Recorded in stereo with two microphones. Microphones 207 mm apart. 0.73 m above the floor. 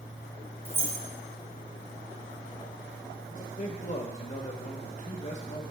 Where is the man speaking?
40° left (ahead or behind), 0.9 m.